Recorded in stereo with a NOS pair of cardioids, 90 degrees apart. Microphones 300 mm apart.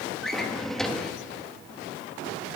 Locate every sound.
0.2 s a drawer: straight ahead, 1.3 m